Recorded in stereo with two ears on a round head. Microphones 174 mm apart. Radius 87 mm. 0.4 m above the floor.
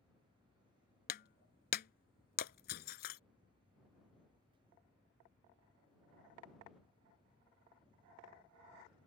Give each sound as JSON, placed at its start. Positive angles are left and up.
{"t": 1.1, "sound": "breaking glass", "side_deg": 50}